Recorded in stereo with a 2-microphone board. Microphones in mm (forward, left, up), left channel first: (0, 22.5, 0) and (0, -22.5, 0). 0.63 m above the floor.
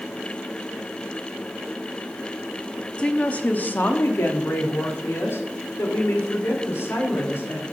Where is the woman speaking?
20° left (ahead or behind), 0.9 m; by 7.6 s 65° left (ahead or behind), 2.5 m.